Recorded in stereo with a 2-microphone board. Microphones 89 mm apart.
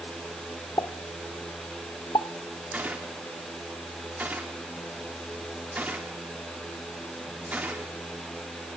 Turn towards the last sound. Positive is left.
turn(degrees=-20)  # may be behind; listen again after turning